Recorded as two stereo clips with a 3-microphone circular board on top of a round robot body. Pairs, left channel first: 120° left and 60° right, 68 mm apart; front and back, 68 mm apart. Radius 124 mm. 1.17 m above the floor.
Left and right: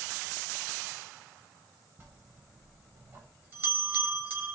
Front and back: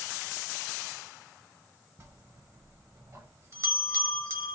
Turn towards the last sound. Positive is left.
turn(degrees=-125)